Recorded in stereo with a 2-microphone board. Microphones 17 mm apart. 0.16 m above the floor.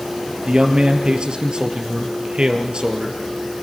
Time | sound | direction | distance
0.5 | a man speaking | 60° right (ahead or behind) | 2.5 m